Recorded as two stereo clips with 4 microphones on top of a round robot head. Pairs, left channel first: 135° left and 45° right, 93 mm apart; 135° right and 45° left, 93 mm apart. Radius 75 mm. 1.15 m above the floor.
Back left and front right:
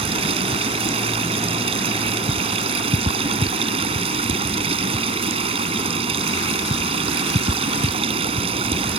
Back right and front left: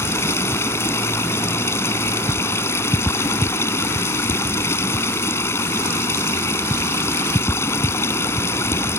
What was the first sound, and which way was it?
Running water, 70° right.